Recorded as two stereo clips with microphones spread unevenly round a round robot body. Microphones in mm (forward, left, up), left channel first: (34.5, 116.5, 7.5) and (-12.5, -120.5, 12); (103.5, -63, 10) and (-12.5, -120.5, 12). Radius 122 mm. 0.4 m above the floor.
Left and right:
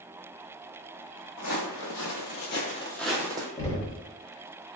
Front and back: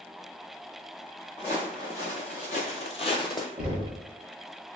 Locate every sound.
1.4 s footsteps: 95° left, 1.2 m; by 3.5 s 30° right, 0.8 m
3.6 s knocking: 135° left, 0.6 m